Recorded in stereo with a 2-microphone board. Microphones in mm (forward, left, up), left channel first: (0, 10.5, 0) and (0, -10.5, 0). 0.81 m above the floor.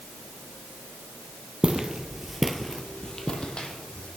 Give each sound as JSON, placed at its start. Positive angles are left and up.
{"t": 1.6, "sound": "footsteps", "side_deg": -40, "distance_m": 1.0}